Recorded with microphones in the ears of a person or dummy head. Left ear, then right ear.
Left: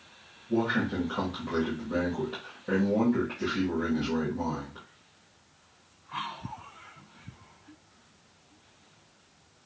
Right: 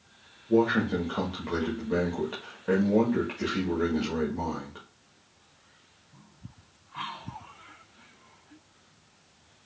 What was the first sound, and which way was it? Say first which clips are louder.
A man speaking: right 4 dB; 75° right (ahead or behind).